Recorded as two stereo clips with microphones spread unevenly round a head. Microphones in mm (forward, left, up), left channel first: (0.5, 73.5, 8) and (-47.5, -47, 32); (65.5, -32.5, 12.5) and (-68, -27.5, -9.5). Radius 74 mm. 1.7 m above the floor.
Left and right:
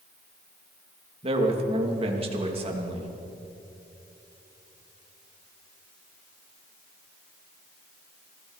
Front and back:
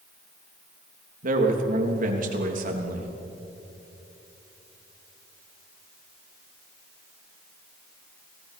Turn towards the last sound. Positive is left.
turn(degrees=-160)